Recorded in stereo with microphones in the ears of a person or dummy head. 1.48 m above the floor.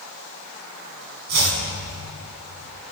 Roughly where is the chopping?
Right.